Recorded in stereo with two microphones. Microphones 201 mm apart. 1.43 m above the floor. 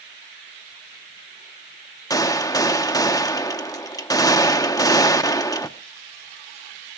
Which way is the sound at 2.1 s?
20° left (ahead or behind).